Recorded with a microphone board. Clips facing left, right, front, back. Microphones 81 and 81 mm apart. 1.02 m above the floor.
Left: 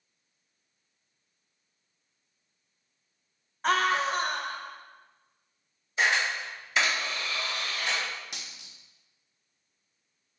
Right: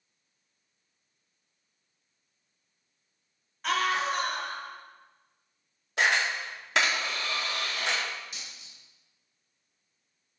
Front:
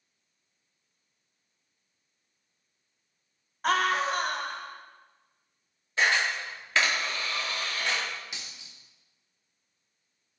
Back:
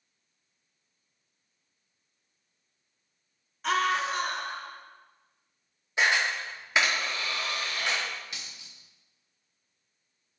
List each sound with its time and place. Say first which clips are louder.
3.6 s a scream: left 2 dB, front 1 dB; 40° left, 1.3 m
6.0 s a camera shutter: even, even; 105° right, 2 m
8.3 s a dropped coin: left 1 dB, even; 70° left, 1.0 m